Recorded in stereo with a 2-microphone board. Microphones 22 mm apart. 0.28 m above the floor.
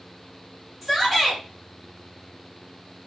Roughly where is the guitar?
I don't hear a guitar.